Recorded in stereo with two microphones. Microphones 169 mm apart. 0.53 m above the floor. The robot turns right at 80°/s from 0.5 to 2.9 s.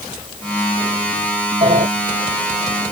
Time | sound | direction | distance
1.6 | a sliding door | 40° right (ahead or behind) | ?